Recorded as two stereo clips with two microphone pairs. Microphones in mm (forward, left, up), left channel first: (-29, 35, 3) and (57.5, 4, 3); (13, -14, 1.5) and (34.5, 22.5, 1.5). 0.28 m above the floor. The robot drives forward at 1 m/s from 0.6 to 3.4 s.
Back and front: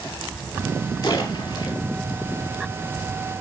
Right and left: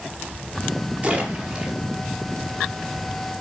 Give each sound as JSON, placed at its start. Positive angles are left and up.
{"t": 1.0, "sound": "a splash", "azimuth_deg": 110, "distance_m": 5.5}